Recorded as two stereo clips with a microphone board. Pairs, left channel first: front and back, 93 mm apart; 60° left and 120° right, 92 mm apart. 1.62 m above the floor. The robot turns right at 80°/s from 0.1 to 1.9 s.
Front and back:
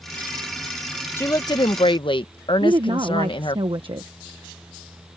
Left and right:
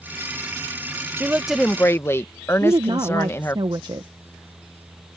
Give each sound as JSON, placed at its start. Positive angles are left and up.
{"t": 1.2, "sound": "a woman speaking", "azimuth_deg": -60}
{"t": 2.6, "sound": "a woman speaking", "azimuth_deg": -155}